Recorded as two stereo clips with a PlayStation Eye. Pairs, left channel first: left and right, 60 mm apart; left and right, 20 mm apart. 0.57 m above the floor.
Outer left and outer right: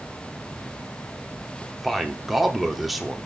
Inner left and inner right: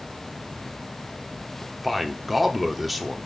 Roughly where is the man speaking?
Centre.